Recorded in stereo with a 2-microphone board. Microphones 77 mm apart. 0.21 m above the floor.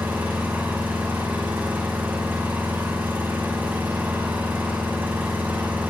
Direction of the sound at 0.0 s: 25° right (ahead or behind).